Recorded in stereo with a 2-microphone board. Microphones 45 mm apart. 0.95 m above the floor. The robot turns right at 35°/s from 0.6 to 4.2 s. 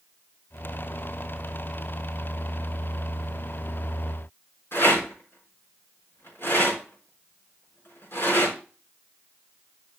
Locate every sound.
4.7 s a rattle: 60° left (ahead or behind), 4.5 m